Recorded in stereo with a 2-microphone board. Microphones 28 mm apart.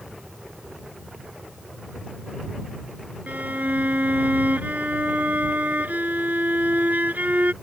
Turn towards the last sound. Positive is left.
turn(degrees=-80)